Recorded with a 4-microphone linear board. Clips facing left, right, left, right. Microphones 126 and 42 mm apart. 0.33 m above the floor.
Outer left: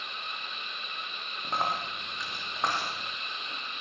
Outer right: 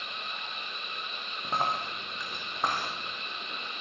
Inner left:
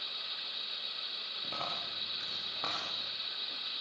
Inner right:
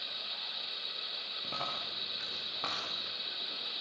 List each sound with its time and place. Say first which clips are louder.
1.4 s a dropped coin: outer right 1 dB, even; 5° right (ahead or behind), 7.5 m